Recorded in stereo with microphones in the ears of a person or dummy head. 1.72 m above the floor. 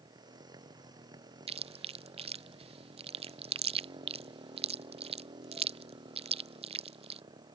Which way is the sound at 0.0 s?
25° right (ahead or behind).